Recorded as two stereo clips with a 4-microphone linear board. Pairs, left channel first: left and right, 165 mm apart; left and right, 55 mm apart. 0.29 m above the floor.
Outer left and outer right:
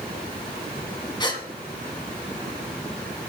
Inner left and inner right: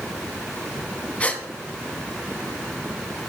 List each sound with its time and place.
1.2 s a gasp: 30° left (ahead or behind), 2 m